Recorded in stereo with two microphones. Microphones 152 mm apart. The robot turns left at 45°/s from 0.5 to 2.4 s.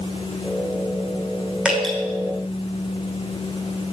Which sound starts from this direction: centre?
Dripping, at 1.6 s.